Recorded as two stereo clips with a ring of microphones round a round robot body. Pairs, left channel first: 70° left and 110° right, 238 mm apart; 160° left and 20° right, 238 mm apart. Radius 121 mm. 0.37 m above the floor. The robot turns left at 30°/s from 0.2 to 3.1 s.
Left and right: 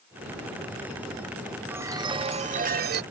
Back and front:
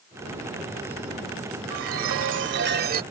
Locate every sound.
1.7 s a chime: 35° right; by 3.0 s 75° right